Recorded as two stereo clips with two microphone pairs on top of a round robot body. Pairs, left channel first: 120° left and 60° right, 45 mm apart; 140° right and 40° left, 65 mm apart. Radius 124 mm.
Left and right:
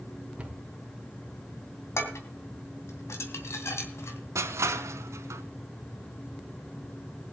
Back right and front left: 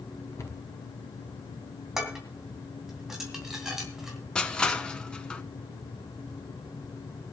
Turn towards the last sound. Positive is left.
turn(degrees=-60)